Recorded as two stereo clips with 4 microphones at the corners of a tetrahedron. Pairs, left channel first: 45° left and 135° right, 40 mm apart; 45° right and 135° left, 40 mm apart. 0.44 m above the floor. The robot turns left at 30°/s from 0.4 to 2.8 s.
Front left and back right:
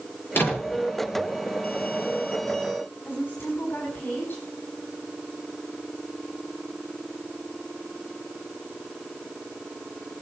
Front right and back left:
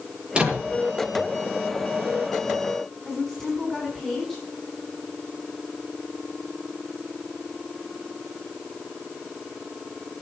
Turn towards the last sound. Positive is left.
turn(degrees=35)